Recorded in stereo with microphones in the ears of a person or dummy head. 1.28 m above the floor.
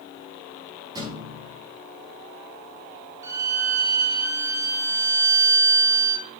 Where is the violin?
20° right (ahead or behind), 1.0 m.